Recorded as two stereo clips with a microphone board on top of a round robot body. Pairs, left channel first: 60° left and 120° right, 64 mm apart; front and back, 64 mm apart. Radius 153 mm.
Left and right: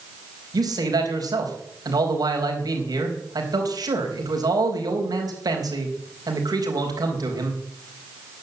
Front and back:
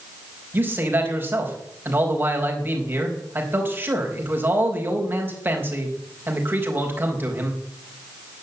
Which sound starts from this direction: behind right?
A man speaking, at 0.5 s.